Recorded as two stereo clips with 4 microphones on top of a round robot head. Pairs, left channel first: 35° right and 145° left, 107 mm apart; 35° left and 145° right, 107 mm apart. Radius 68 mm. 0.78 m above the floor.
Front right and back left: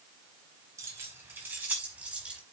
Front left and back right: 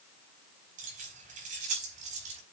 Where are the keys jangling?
150° right, 4 m; by 2.4 s 135° right, 5 m.